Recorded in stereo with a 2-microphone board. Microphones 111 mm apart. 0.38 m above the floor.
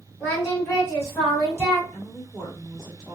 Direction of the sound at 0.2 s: 25° left (ahead or behind).